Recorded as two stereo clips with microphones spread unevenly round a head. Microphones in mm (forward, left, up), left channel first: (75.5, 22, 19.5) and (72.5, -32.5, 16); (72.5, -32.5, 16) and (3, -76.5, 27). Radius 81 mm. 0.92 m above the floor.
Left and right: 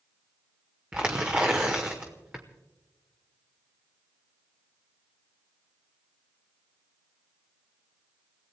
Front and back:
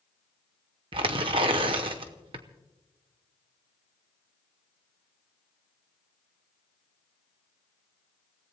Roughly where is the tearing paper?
Behind.